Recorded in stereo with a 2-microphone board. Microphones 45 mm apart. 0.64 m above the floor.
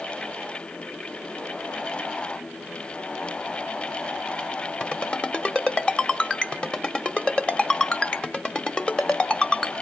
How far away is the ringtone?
About 1.4 m.